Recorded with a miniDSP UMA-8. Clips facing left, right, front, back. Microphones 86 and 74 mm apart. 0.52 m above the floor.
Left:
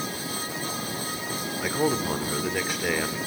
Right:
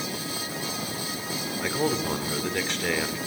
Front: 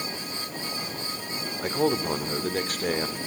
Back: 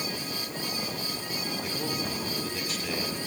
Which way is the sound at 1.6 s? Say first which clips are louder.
Left 1 dB, front 12 dB; 10° left.